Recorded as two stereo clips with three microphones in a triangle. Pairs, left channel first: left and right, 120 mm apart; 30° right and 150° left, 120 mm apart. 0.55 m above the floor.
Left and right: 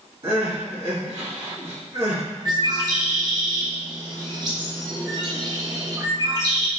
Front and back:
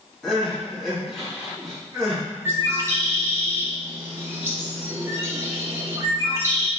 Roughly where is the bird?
Behind right.